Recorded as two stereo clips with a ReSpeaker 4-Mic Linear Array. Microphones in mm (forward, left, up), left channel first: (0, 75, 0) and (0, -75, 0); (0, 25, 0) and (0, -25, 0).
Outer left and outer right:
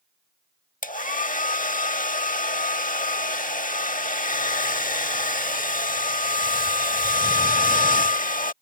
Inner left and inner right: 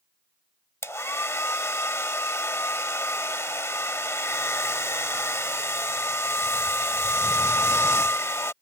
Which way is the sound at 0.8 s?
65° left (ahead or behind).